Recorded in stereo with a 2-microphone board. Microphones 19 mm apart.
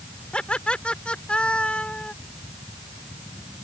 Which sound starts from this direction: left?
Laughter, at 0.3 s.